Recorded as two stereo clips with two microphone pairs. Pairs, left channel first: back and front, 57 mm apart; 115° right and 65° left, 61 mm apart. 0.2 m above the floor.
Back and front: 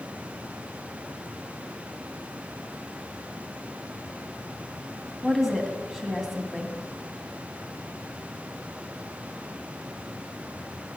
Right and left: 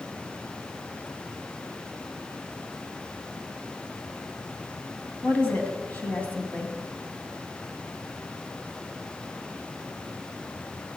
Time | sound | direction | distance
5.2 | a woman speaking | 95° right | 1.7 m